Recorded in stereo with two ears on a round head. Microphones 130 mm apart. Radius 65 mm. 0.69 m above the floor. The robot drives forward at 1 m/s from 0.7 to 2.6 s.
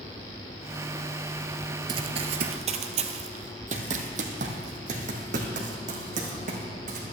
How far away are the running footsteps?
About 0.9 m.